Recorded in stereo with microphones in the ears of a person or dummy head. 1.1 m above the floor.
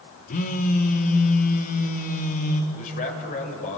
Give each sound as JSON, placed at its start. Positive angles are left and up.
{"t": 0.3, "sound": "a phone buzzing", "side_deg": 45, "distance_m": 1.2}
{"t": 2.7, "sound": "a man speaking", "side_deg": 40, "distance_m": 6.0}